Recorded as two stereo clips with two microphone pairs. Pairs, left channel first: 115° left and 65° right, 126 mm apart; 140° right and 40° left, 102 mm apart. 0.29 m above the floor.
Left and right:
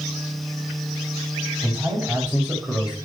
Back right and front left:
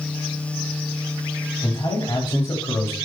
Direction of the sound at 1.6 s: 130° right.